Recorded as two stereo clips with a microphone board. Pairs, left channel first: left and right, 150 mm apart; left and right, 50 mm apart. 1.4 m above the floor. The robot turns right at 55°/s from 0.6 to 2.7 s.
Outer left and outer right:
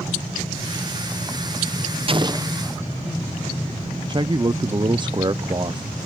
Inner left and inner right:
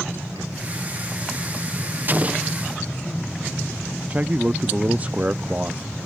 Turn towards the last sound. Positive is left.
turn(degrees=-30)  # may be behind; listen again after turning